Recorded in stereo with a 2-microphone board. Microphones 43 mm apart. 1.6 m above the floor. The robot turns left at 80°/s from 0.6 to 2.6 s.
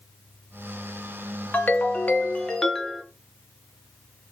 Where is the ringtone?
105° left, 0.7 m; by 3.0 s 20° left, 0.7 m.